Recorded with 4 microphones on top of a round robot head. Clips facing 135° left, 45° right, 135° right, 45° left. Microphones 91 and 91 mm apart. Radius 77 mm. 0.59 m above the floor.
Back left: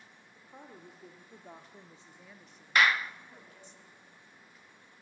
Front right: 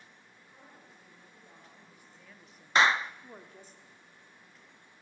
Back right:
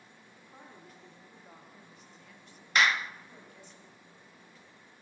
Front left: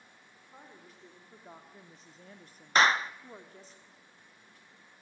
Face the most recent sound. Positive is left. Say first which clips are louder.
# front right 2 dB, front left 3 dB
turn(degrees=5)